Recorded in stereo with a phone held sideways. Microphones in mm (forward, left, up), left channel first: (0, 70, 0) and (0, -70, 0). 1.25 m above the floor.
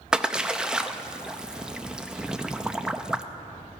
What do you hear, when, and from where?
0.1 s a splash: 5° right (ahead or behind), 0.5 m